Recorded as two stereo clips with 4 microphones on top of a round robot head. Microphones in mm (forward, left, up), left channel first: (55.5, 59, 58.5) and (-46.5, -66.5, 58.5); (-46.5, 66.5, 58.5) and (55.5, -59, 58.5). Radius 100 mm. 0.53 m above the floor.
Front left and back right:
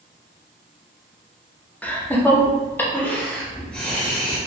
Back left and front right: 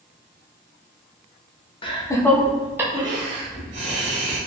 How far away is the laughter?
About 0.7 m.